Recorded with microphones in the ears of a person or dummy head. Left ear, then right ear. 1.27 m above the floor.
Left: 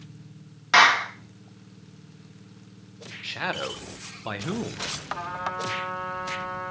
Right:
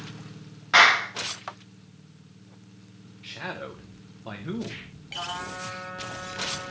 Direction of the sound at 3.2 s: 25° left (ahead or behind).